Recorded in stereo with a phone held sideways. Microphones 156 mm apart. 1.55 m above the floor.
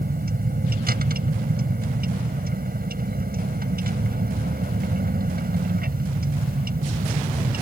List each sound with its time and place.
0.0 s a vehicle: 75° right (ahead or behind)